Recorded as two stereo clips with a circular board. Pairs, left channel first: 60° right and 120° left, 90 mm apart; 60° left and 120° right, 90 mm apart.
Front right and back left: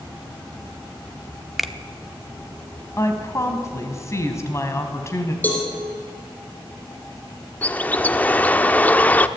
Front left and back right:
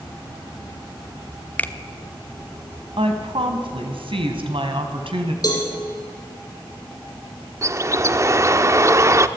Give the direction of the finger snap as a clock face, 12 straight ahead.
11 o'clock.